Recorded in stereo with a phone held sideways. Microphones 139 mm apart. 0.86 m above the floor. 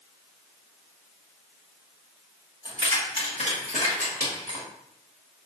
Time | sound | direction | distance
2.6 | keys jangling | 35° left (ahead or behind) | 1.2 m